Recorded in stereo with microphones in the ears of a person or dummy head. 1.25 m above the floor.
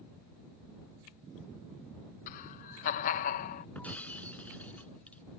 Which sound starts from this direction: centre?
Breaking glass, at 3.8 s.